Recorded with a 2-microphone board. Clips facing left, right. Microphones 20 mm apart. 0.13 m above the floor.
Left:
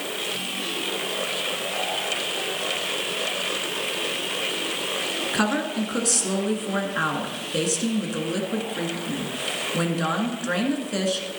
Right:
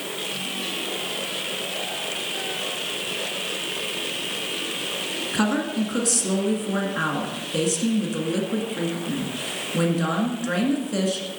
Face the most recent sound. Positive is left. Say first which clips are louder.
# right 2 dB
turn(degrees=10)  # may be behind; listen again after turning